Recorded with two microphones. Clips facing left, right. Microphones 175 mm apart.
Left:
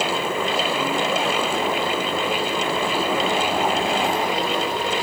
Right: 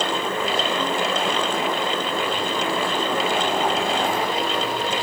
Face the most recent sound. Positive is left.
No sound to turn to.